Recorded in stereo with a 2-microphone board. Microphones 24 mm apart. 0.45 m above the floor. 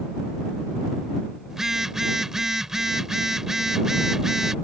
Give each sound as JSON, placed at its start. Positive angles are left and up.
{"t": 1.5, "sound": "a phone buzzing", "side_deg": -20}